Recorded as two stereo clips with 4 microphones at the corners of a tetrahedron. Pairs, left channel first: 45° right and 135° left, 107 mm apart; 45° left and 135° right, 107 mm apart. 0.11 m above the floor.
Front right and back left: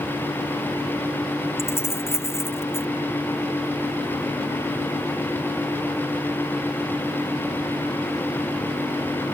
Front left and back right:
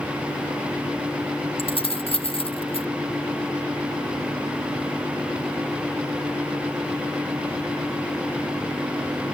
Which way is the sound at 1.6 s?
20° left.